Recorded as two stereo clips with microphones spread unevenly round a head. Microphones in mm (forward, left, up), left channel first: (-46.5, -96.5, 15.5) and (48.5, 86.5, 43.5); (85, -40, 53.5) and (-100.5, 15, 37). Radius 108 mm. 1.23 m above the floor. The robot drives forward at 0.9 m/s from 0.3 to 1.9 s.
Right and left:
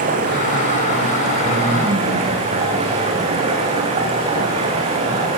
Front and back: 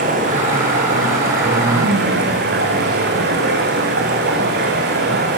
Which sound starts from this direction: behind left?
Running water, at 0.0 s.